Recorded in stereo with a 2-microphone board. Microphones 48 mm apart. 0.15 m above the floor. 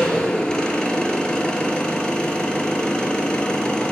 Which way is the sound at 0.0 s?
20° left (ahead or behind).